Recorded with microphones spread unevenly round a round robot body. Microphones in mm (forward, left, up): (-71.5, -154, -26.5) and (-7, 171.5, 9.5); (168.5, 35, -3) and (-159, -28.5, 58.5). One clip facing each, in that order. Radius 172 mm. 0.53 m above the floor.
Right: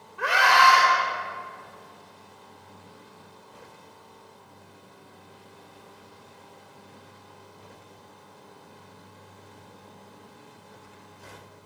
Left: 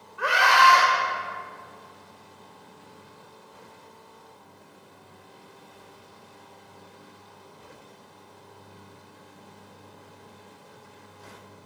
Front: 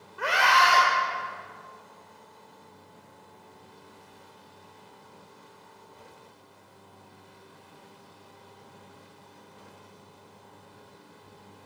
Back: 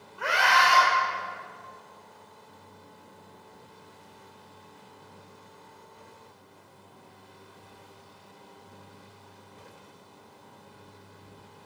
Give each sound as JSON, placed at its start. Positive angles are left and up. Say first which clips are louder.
{"t": 0.2, "sound": "a scream", "louder": "even, front 1 dB", "azimuth_deg": -45, "distance_m": 2.5}